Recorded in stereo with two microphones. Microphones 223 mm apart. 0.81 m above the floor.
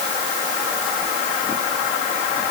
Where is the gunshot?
No gunshot in this recording.